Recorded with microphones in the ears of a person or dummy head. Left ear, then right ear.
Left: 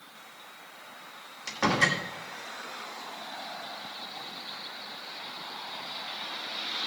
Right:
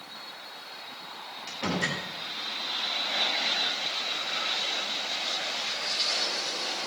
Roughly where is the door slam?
Left.